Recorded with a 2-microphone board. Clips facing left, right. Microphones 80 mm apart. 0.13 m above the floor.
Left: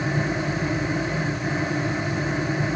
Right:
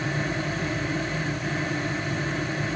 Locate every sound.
Only background noise.